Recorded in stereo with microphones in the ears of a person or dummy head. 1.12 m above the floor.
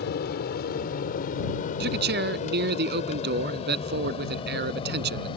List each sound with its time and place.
0.0 s an aircraft: 55° left (ahead or behind); by 5.4 s 25° left (ahead or behind)
1.8 s a man speaking: 55° right (ahead or behind)